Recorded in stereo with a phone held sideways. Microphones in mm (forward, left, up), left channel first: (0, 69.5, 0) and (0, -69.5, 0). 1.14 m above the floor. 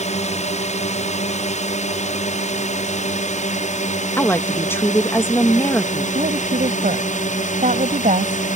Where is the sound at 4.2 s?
15° left (ahead or behind).